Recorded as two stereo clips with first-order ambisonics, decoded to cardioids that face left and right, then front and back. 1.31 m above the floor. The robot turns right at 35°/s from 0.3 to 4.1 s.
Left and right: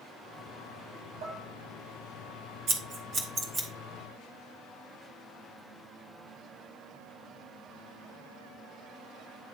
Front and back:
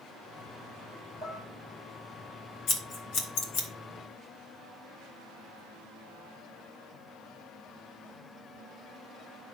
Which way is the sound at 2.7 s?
50° right.